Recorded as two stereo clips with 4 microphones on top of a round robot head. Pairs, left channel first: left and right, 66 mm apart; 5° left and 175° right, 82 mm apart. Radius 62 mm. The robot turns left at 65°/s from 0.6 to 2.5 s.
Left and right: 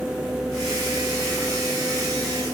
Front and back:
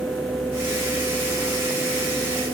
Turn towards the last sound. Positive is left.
No sound to turn to.